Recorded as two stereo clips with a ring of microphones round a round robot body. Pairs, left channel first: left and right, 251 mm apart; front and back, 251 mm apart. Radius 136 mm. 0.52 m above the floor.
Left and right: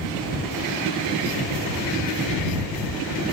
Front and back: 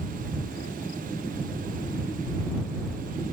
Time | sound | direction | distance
0.5 | keys jangling | 45° right | ?